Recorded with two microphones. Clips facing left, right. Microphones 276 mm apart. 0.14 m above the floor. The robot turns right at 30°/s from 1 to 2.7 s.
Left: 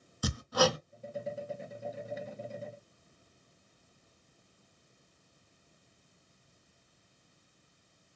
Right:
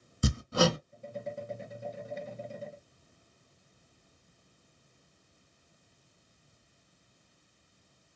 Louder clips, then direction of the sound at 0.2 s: Right 1 dB; 25° right (ahead or behind).